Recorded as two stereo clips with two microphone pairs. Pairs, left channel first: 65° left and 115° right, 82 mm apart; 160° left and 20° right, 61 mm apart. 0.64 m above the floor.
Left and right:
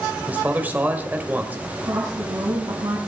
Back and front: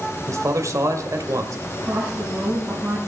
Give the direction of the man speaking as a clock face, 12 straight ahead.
2 o'clock.